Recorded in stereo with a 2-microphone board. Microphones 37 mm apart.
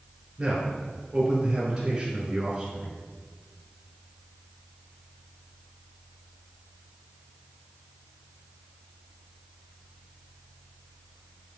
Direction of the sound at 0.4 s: 15° right (ahead or behind).